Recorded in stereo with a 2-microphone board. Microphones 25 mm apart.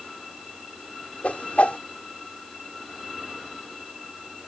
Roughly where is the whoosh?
Left.